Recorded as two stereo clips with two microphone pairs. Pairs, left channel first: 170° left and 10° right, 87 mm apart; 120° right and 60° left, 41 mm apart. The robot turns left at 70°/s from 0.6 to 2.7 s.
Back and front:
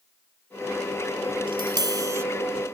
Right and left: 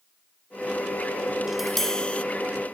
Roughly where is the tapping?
Ahead.